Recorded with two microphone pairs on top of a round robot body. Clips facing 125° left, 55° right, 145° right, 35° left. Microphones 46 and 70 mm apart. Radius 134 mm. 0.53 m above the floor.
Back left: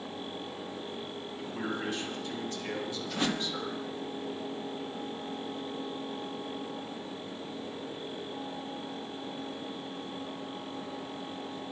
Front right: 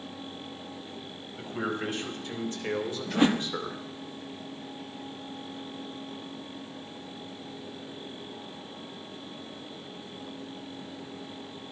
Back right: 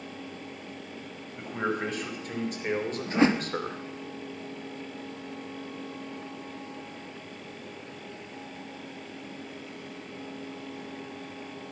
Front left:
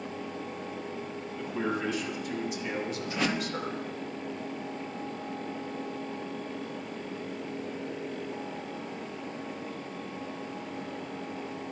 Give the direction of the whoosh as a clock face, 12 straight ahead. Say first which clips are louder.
Front right 8 dB, back right 9 dB; 3 o'clock.